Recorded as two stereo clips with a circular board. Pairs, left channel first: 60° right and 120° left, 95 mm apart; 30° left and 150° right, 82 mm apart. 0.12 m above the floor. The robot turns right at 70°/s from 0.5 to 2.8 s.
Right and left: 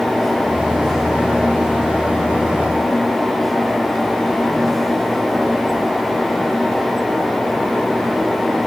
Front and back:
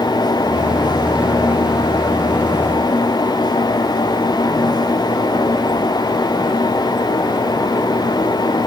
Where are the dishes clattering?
I don't hear dishes clattering.